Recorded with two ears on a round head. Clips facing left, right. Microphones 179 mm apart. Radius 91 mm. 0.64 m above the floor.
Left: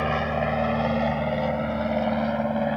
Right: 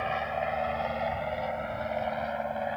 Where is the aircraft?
60° left (ahead or behind); by 2.8 s 55° left (ahead or behind).